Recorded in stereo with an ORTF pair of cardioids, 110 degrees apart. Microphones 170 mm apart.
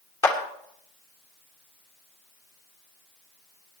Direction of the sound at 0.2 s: 20° left.